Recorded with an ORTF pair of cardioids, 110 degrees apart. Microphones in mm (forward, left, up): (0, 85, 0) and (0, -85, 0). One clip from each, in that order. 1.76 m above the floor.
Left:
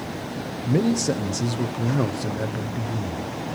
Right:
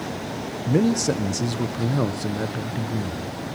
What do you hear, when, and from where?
0.7 s a man speaking: 10° right, 1.4 m